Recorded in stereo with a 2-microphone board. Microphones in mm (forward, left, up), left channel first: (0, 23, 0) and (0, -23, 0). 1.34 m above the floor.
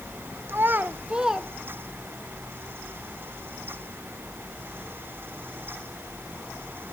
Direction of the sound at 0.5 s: 55° right (ahead or behind).